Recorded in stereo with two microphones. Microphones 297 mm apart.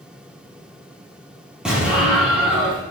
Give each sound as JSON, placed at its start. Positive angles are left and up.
{"t": 1.6, "sound": "an explosion", "side_deg": -5, "distance_m": 3.5}